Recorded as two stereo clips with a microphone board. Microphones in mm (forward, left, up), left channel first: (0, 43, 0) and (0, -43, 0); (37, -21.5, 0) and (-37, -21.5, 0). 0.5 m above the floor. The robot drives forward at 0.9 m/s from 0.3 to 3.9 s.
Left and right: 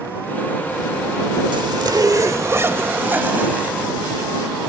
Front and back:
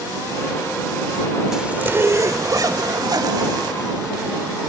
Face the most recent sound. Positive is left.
turn(degrees=-165)